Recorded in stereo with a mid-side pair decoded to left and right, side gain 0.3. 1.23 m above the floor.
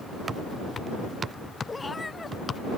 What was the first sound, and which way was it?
A cat meowing, 30° left.